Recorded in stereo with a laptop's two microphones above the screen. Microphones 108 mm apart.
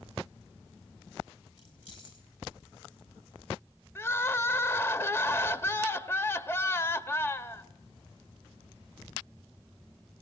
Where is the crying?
20° left (ahead or behind), 0.8 m.